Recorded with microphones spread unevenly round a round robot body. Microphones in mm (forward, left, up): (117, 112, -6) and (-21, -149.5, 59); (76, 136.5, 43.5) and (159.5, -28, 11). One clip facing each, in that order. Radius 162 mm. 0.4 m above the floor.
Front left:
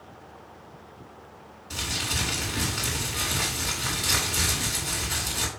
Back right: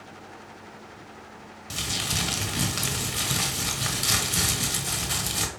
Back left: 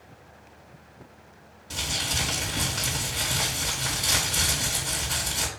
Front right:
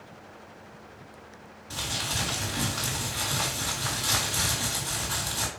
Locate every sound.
1.7 s crumpling: 160° right, 1.5 m